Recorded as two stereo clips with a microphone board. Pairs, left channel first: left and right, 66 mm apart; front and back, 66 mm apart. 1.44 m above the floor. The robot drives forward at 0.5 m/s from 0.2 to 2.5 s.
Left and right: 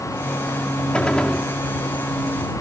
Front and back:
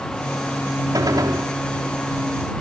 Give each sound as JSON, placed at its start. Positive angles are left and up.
{"t": 0.9, "sound": "a gunshot", "azimuth_deg": 165}